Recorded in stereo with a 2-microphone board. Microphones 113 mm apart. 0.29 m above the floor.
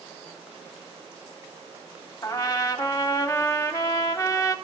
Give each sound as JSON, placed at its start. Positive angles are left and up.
{"t": 2.2, "sound": "a trumpet", "side_deg": 35, "distance_m": 0.6}